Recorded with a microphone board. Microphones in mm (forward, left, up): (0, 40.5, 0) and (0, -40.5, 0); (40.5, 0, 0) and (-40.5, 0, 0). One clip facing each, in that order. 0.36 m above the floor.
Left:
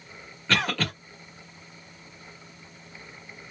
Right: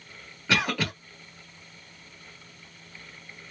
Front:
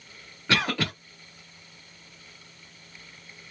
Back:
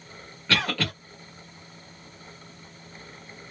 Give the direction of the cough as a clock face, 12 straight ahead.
1 o'clock.